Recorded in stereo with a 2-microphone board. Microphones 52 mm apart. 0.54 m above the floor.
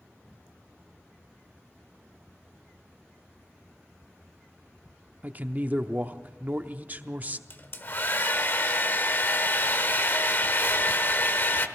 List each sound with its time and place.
5.2 s a man speaking: 35° right (ahead or behind), 0.7 m
7.5 s a hair dryer: 40° left (ahead or behind), 0.9 m